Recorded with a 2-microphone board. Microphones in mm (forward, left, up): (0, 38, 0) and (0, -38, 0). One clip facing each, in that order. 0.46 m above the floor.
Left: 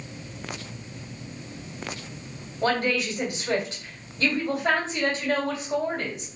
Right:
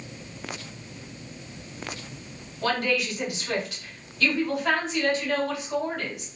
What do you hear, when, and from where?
2.6 s a woman speaking: 30° left (ahead or behind), 1.7 m